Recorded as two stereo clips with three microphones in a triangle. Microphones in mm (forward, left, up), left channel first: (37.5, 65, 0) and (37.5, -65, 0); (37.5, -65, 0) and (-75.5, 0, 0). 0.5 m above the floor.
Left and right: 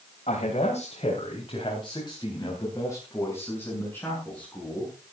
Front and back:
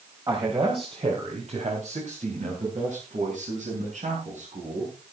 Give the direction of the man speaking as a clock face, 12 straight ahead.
9 o'clock.